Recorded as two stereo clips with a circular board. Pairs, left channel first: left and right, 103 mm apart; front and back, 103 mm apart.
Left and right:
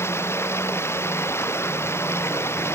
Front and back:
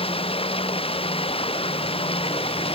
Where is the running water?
25° left.